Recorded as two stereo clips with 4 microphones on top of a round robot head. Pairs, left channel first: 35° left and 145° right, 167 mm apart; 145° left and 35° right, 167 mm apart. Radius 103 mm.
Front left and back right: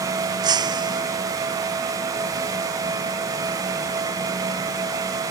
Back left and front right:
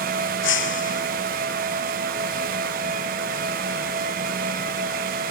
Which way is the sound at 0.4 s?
150° left.